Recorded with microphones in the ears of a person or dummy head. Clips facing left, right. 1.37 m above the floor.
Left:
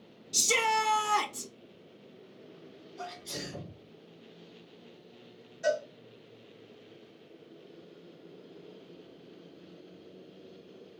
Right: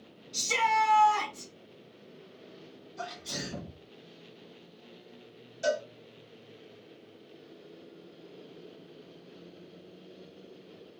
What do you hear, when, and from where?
0.3 s a shout: 60° left (ahead or behind), 0.5 m
3.0 s a sneeze: 60° right (ahead or behind), 1.7 m
5.6 s a cowbell: 65° right (ahead or behind), 1.9 m